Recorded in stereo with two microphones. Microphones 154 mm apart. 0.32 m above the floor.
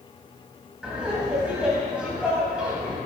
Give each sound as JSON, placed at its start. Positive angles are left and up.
{"t": 0.8, "sound": "laughter", "side_deg": -5, "distance_m": 1.7}